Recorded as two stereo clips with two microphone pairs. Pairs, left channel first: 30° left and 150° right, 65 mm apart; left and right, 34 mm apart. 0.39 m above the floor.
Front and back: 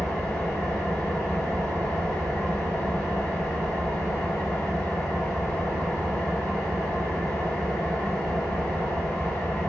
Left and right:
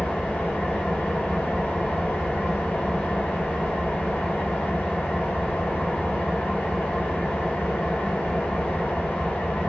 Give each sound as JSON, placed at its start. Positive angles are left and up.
{"t": 0.0, "sound": "an engine running", "azimuth_deg": 95, "distance_m": 1.2}